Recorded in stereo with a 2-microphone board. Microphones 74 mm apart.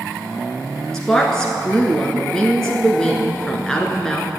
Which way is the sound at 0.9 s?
5° left (ahead or behind).